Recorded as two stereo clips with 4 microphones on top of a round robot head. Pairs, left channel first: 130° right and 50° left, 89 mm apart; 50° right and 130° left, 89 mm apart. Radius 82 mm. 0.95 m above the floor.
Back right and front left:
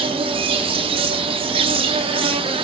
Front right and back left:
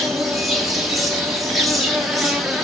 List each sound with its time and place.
0.0 s an insect: 40° left, 2 m